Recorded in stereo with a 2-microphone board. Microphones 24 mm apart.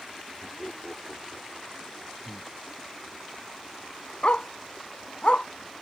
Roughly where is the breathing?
Centre.